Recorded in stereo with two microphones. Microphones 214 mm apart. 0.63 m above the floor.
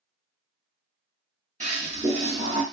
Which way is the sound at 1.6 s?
35° right (ahead or behind).